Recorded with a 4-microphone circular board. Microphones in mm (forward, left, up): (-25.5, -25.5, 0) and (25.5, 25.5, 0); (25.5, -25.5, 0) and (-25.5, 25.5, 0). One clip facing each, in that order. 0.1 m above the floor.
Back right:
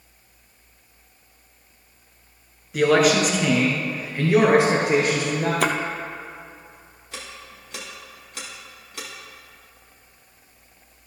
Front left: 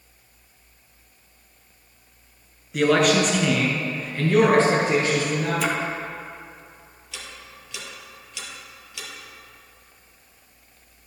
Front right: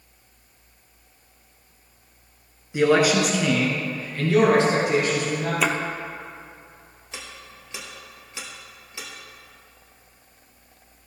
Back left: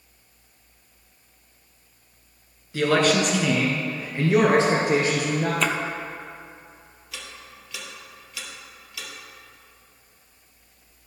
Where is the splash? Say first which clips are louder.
Back right 4 dB, front right 4 dB; 125° right, 0.7 m.